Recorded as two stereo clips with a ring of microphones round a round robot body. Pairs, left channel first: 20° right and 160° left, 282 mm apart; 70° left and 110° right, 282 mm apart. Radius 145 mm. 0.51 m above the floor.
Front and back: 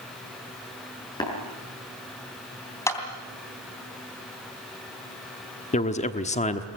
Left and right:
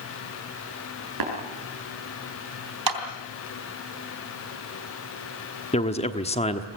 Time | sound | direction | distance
1.2 | tapping | 100° right | 6.5 m
2.9 | a clap | 105° right | 3 m
5.7 | a man speaking | 20° left | 1.1 m